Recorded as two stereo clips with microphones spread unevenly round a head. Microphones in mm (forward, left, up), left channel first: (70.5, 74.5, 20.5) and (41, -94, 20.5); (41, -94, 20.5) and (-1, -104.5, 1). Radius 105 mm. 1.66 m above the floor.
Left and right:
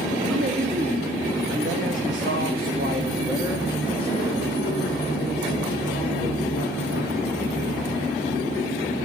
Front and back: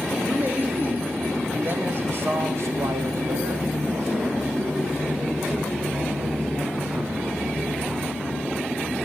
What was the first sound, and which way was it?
A man speaking, 110° right.